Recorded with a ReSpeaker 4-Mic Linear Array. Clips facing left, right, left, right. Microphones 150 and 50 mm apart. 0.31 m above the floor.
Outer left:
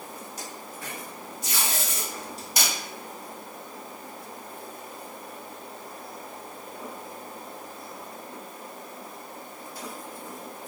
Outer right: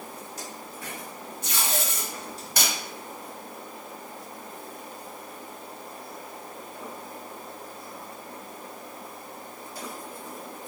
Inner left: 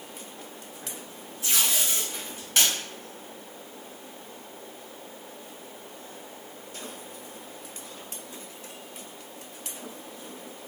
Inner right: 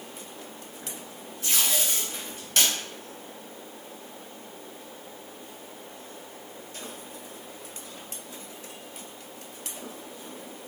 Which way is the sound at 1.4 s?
10° left (ahead or behind).